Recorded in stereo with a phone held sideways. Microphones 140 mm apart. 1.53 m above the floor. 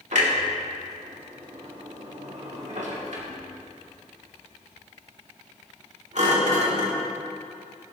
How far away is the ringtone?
No ringtone in this recording.